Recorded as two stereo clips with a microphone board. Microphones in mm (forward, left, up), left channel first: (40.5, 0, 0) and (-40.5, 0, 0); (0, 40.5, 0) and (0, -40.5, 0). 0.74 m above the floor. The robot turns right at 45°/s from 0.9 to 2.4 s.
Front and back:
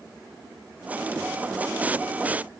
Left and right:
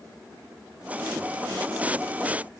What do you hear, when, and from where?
Only background noise.